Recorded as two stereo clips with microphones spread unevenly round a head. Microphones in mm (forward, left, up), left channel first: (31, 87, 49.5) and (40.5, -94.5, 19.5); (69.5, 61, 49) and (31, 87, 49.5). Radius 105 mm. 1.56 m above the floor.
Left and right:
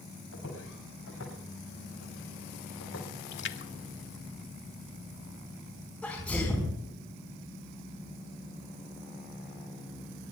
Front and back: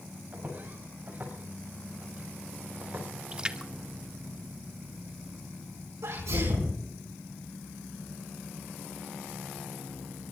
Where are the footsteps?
105° left, 7 m.